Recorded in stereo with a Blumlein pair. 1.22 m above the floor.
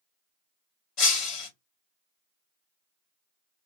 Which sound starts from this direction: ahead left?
Breaking glass, at 1.0 s.